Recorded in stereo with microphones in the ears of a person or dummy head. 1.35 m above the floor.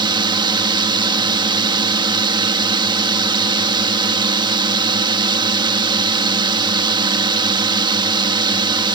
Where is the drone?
20° right (ahead or behind).